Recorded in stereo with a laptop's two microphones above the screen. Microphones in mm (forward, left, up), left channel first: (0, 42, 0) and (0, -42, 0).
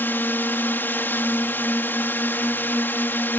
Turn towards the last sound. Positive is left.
turn(degrees=25)  # may be behind; listen again after turning